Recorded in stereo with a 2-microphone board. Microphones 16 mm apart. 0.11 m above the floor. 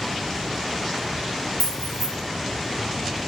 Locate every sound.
1.6 s keys jangling: 25° left (ahead or behind), 1.2 m